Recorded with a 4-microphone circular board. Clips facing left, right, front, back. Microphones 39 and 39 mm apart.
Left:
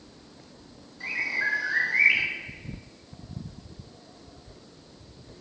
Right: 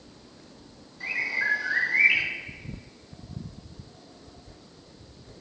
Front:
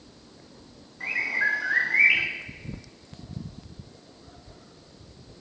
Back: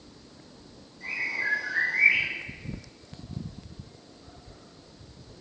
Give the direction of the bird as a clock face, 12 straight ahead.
12 o'clock.